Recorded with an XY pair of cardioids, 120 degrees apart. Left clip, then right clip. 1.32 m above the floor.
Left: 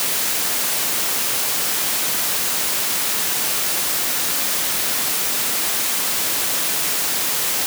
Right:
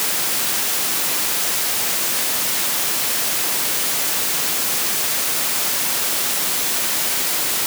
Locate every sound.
Only background noise.